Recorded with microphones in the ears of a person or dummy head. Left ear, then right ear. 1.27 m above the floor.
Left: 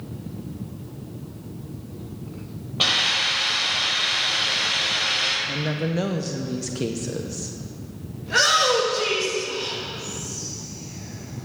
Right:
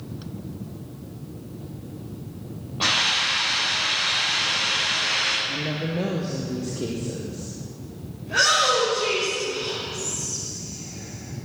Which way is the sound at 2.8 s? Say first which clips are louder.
Left 1 dB; 65° left (ahead or behind).